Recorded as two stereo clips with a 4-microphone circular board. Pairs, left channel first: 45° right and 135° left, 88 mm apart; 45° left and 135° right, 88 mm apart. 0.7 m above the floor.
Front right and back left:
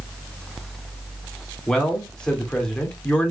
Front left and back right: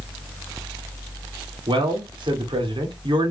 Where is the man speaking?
125° right, 2 m.